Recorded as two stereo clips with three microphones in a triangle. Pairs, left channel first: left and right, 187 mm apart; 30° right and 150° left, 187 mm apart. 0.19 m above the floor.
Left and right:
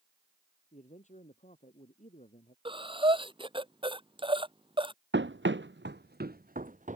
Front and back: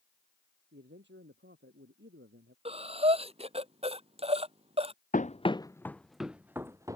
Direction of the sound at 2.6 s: 150° right.